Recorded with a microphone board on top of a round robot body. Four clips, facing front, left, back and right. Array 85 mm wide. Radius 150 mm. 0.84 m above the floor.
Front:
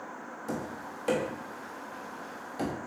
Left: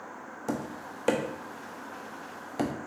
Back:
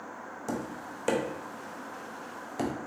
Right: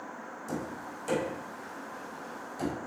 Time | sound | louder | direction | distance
0.5 | tapping | left 3 dB, back 1 dB | 110° left | 0.8 m